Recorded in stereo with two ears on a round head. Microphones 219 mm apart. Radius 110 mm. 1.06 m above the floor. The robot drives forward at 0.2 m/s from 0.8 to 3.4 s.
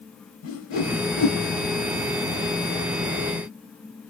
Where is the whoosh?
60° left (ahead or behind), 1.4 m.